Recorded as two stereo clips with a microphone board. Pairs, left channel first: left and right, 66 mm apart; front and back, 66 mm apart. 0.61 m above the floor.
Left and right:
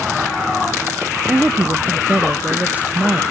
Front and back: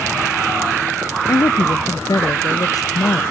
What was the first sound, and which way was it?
A woman speaking, 20° right.